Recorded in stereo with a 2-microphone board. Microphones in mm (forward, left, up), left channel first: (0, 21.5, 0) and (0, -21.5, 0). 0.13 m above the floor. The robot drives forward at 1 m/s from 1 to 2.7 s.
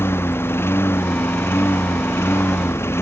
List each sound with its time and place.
0.0 s a lawn mower: 60° left (ahead or behind); by 3.0 s 70° left (ahead or behind)